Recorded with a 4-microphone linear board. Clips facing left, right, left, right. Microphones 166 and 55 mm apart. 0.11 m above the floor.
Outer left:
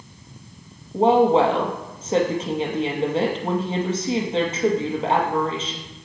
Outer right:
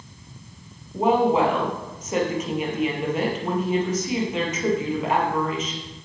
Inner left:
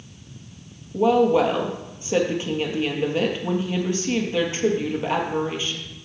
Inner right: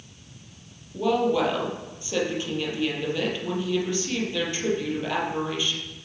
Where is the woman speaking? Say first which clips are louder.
Outer left 3 dB, inner left 5 dB; 30° left (ahead or behind), 2 m.